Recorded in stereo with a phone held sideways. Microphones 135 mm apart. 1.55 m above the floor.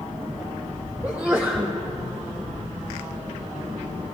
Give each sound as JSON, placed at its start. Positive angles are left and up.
{"t": 1.0, "sound": "a sneeze", "side_deg": -15, "distance_m": 0.9}